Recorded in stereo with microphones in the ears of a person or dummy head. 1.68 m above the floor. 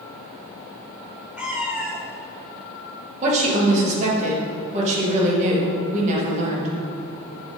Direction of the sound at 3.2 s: 35° right (ahead or behind).